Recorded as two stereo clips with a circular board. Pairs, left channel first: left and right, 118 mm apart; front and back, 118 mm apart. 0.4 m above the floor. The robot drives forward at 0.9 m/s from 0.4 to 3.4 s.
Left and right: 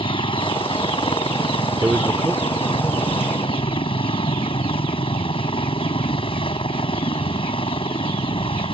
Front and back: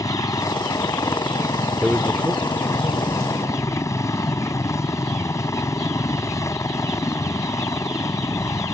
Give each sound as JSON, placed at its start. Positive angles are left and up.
{"t": 0.0, "sound": "a helicopter", "azimuth_deg": 55}
{"t": 1.8, "sound": "a man speaking", "azimuth_deg": -105}